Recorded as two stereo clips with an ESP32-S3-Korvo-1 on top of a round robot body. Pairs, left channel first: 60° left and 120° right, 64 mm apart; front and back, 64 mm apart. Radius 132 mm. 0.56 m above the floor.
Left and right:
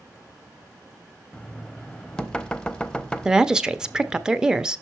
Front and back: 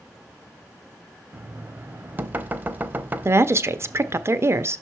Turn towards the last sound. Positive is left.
turn(degrees=165)